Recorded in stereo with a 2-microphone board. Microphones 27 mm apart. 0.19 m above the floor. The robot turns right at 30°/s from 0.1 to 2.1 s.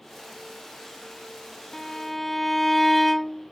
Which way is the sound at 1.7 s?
15° left (ahead or behind).